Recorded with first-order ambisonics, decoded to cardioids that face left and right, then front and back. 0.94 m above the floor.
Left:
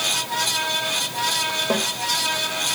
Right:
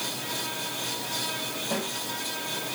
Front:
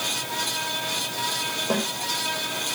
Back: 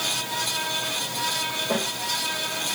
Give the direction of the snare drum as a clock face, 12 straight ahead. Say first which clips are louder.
Left 6 dB, front 1 dB; 10 o'clock.